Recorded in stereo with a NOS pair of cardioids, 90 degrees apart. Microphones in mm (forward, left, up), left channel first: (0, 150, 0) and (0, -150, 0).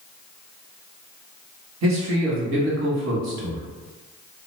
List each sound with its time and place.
1.8 s a man speaking: 60° right, 1.3 m